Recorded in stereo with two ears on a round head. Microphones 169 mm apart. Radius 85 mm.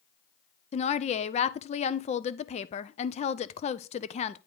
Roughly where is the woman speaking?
Left.